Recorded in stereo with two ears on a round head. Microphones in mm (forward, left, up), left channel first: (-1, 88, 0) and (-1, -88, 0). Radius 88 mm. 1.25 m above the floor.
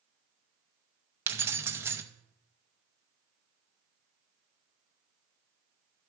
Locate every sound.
1.3 s keys jangling: 10° right (ahead or behind), 0.6 m